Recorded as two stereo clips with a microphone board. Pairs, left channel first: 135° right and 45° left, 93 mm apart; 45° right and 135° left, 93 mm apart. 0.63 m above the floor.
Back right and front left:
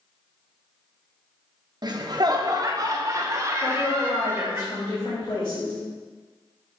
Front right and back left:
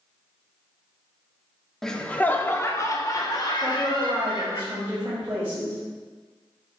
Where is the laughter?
40° left, 0.8 m; by 4.6 s 15° right, 1.8 m.